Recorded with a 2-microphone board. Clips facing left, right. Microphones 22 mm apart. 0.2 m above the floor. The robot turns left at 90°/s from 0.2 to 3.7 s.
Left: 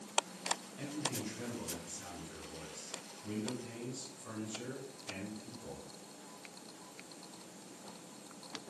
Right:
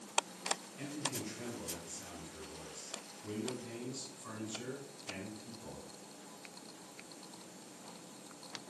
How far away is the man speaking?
About 1.1 m.